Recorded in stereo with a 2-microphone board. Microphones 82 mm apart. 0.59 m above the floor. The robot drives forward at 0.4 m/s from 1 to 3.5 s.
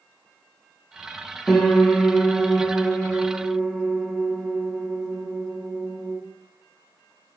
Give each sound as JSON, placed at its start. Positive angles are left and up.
{"t": 1.5, "sound": "a piano", "side_deg": 5, "distance_m": 0.7}